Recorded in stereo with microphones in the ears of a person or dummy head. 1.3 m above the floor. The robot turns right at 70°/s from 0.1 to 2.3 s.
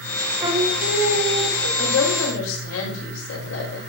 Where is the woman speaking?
70° left, 5 m; by 3.8 s 105° left, 5 m.